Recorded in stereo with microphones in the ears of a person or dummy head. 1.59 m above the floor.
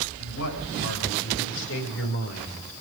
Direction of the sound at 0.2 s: 75° left (ahead or behind).